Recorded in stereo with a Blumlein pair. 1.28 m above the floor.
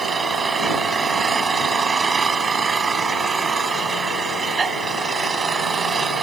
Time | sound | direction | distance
0.0 | an engine running | 15° right | ?